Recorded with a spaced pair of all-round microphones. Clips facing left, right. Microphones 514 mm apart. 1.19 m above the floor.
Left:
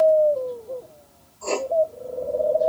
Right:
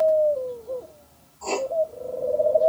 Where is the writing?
10° right (ahead or behind), 1.2 m.